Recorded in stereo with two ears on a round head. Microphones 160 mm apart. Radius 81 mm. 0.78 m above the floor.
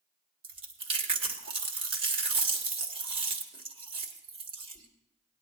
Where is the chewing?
30° right (ahead or behind), 1.6 m.